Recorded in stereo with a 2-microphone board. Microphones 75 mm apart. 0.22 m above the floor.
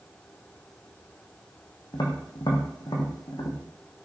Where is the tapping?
65° left (ahead or behind), 4.5 m.